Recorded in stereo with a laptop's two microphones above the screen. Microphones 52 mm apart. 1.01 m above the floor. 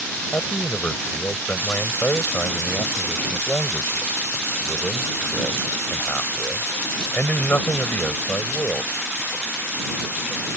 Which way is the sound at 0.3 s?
30° left (ahead or behind).